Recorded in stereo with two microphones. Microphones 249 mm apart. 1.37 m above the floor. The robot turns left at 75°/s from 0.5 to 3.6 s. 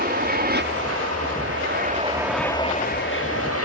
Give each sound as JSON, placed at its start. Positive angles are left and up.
{"t": 0.0, "sound": "an aircraft", "azimuth_deg": -40}